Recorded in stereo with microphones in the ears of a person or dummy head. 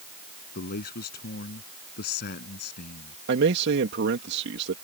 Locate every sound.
0.6 s a man speaking: 55° left (ahead or behind)
3.3 s a man speaking: 65° right (ahead or behind)